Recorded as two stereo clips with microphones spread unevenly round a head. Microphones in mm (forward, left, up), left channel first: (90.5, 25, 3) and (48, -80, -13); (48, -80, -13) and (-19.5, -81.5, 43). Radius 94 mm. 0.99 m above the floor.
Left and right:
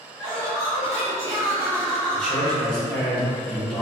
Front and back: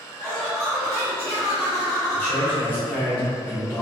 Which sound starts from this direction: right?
Laughter, at 0.2 s.